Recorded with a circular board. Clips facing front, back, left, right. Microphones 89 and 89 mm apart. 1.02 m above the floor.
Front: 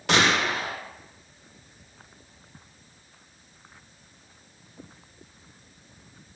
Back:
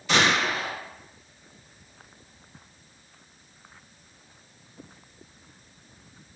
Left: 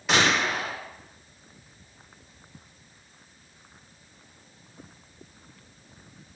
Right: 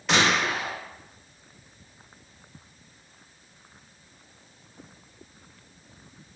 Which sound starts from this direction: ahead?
A gunshot, at 0.1 s.